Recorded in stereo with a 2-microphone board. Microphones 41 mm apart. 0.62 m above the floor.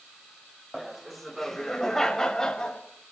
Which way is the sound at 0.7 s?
5° right (ahead or behind).